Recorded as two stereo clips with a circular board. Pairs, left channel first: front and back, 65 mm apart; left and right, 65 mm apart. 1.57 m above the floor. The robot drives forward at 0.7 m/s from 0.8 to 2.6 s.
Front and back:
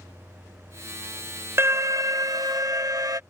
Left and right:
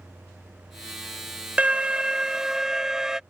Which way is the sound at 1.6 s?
155° right.